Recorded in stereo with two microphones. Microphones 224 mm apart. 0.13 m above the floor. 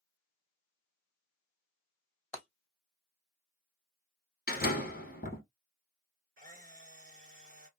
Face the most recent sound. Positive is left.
turn(degrees=-40)  # may be behind; listen again after turning